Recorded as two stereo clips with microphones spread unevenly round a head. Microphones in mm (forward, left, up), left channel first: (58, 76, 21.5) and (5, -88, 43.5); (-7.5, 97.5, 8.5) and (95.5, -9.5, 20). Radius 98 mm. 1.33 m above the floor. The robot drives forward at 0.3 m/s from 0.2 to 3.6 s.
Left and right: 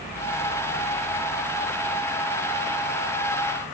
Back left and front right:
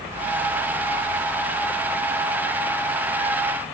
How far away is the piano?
No piano in this recording.